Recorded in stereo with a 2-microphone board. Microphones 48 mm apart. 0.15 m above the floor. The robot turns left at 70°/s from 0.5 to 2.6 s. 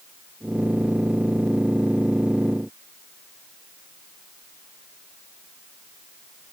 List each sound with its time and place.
Only background noise.